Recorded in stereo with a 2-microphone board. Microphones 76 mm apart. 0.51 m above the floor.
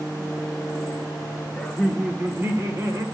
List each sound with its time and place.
1.6 s laughter: 5° left (ahead or behind), 1.1 m; by 3.0 s 50° right (ahead or behind), 1.9 m